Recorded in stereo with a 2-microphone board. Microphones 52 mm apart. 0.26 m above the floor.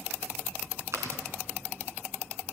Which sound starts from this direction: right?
Chewing, at 0.9 s.